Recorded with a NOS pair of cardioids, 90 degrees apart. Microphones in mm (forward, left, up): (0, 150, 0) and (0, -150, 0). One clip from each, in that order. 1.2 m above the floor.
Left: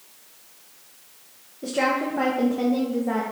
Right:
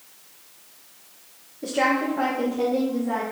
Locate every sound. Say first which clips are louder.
1.6 s a woman speaking: right 1 dB; 5° right, 1.2 m; by 3.2 s 40° left, 2.5 m